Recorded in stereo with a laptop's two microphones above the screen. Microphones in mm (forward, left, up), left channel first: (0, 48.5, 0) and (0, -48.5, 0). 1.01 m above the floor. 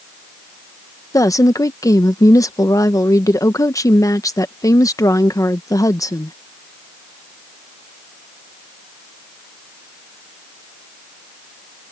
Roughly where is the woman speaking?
Left.